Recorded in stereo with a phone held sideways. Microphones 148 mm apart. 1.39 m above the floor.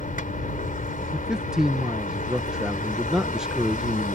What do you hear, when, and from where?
0.0 s a vehicle: 65° left (ahead or behind)
1.1 s a man speaking: 5° right (ahead or behind)